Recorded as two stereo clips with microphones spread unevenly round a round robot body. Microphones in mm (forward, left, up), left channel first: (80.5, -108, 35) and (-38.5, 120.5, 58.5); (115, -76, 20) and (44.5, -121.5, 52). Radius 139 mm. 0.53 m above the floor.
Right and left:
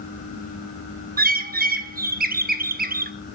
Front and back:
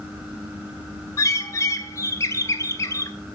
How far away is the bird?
About 1.1 m.